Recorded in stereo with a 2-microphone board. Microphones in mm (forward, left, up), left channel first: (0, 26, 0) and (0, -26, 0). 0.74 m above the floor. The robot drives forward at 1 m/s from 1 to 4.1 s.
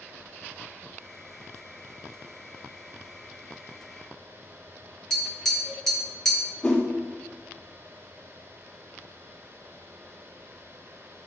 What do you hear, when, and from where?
5.1 s tapping: 15° left (ahead or behind), 2.5 m
6.6 s a whoosh: 20° left (ahead or behind), 1.9 m